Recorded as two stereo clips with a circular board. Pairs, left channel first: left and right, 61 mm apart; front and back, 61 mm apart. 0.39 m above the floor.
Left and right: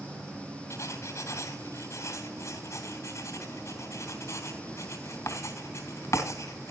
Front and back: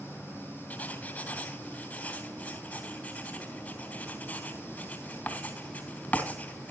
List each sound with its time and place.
0.7 s writing: 65° left, 3.5 m